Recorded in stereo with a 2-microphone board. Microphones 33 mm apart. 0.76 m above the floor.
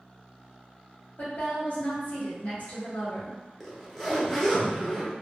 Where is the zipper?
Centre (ahead or behind), 0.7 m.